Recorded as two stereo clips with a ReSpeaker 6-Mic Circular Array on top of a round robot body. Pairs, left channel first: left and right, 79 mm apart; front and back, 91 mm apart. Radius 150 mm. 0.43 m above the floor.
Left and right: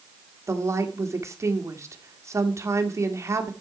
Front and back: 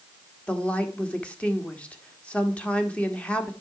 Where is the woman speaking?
70° right, 1.6 m.